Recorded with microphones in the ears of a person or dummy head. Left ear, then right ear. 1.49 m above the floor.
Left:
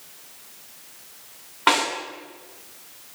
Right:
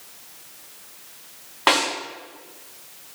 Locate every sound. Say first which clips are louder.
1.7 s a snare drum: right 1 dB; 10° right (ahead or behind), 3 m